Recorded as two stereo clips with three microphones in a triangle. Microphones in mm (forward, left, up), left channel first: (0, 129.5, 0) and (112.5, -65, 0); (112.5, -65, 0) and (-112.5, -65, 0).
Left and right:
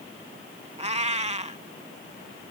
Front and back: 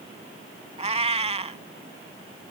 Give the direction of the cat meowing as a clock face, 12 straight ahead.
4 o'clock.